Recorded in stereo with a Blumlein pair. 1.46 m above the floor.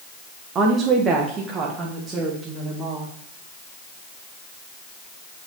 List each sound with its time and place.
0.6 s a woman speaking: 25° right, 1.1 m; by 3.1 s 15° right, 2.5 m